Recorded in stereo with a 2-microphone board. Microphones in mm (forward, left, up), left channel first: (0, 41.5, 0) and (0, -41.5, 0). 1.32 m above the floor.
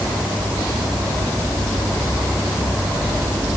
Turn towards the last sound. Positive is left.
No sound to turn to.